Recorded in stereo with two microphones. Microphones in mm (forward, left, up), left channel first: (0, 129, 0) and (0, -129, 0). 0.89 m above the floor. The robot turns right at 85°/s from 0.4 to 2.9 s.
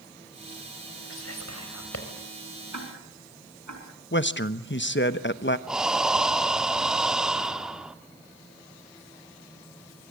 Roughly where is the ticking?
Right.